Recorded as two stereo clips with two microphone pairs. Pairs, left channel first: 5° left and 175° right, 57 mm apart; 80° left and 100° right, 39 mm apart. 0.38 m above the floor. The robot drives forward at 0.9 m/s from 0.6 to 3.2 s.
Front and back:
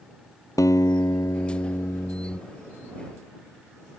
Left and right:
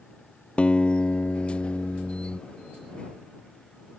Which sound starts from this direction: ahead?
A guitar, at 0.6 s.